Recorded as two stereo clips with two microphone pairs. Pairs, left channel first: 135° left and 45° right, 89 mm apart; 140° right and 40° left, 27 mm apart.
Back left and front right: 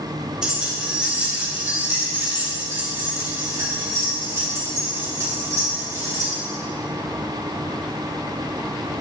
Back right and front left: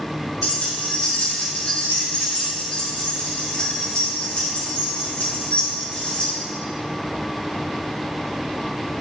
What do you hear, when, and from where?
0.4 s keys jangling: 125° right, 2 m; by 6.3 s 100° right, 4.5 m